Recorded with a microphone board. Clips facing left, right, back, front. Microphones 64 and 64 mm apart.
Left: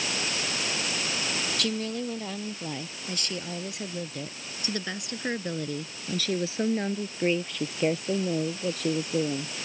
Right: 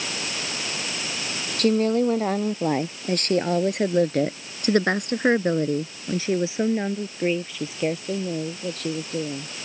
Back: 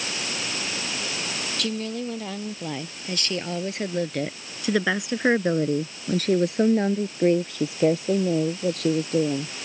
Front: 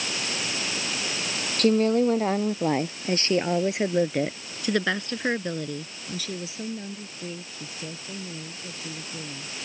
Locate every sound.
1.6 s a woman speaking: 45° right; by 9.5 s 170° left